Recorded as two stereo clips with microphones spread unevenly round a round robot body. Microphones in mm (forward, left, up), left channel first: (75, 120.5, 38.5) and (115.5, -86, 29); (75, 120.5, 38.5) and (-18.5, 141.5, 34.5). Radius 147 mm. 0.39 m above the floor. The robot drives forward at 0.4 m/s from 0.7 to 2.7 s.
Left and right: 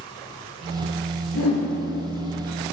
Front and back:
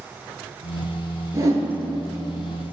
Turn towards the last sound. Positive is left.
turn(degrees=120)